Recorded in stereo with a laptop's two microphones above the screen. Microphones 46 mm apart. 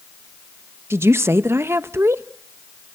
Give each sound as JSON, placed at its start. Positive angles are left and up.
{"t": 0.9, "sound": "a woman speaking", "side_deg": -65, "distance_m": 0.6}